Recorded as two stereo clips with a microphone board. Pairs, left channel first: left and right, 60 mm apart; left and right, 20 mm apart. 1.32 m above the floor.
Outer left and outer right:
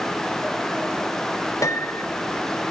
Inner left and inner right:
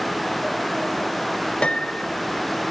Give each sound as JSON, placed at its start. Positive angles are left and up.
{"t": 1.6, "sound": "a piano", "side_deg": 60, "distance_m": 0.7}